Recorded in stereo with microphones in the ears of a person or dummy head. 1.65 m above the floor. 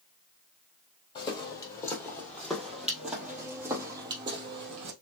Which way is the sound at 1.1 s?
25° left (ahead or behind).